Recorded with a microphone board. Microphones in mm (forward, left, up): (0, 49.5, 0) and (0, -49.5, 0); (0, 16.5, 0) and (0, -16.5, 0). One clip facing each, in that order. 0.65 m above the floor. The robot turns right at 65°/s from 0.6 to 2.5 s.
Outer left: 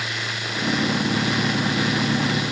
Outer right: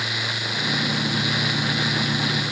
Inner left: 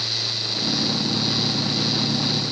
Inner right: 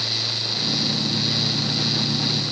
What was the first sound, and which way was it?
Only background noise.